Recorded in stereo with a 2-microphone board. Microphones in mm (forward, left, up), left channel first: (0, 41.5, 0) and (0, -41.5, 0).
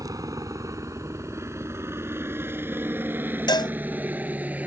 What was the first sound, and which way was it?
A helicopter, 40° right (ahead or behind).